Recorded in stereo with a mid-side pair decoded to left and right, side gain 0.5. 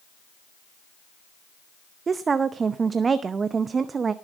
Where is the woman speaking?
35° right, 0.7 m.